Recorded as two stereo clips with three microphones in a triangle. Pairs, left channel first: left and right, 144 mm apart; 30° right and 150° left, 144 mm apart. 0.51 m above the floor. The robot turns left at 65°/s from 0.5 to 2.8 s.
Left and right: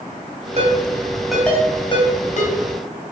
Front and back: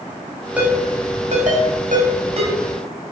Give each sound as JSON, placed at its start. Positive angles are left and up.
{"t": 0.6, "sound": "a ringtone", "azimuth_deg": -130, "distance_m": 2.5}